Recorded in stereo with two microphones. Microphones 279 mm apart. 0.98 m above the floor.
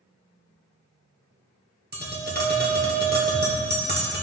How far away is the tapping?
About 1.4 m.